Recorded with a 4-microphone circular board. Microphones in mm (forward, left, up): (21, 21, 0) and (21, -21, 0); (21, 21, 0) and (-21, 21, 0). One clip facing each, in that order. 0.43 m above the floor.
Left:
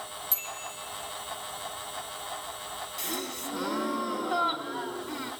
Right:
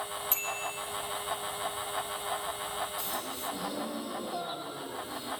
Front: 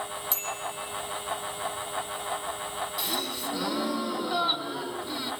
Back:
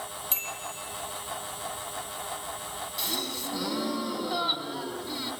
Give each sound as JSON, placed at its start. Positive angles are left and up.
{"t": 0.3, "sound": "a bicycle bell", "azimuth_deg": -130, "distance_m": 10.0}
{"t": 3.0, "sound": "a gasp", "azimuth_deg": 85, "distance_m": 3.0}